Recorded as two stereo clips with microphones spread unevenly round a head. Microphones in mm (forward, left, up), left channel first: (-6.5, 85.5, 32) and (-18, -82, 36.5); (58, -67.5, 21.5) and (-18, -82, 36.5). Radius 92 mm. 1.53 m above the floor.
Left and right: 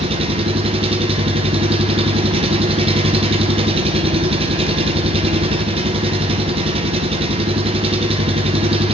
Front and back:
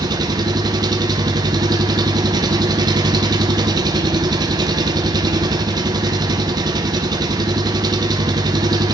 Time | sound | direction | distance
0.0 | an engine running | 150° right | 0.8 m